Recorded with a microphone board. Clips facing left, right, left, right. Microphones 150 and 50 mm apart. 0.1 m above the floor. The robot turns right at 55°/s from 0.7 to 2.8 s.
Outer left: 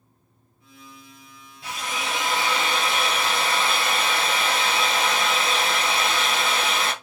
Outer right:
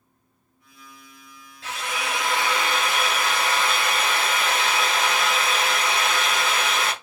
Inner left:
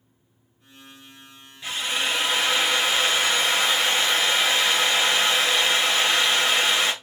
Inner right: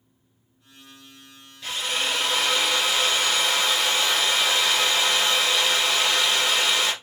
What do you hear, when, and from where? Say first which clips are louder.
1.6 s a drill: outer right 1 dB, inner left 1 dB; 15° left (ahead or behind), 1.2 m; by 6.9 s 30° left (ahead or behind), 1.2 m